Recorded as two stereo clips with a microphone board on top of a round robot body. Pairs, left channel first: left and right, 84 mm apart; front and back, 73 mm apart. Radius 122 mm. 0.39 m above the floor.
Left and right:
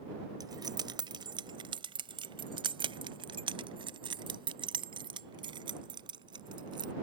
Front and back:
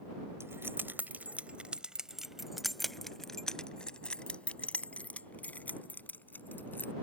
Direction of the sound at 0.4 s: 125° right.